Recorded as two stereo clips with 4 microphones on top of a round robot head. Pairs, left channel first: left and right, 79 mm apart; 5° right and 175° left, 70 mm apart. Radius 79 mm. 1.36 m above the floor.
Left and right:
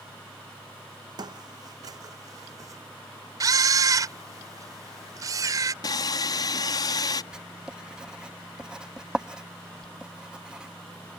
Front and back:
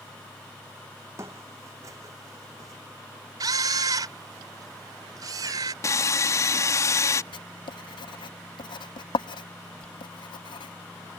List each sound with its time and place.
1.2 s footsteps: 125° right; by 2.8 s 135° right
3.4 s a camera shutter: 135° right
5.8 s sawing: 40° left
7.3 s writing: 5° right